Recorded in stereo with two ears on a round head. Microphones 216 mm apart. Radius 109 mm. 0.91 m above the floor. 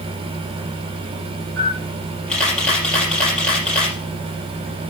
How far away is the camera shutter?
About 4.5 m.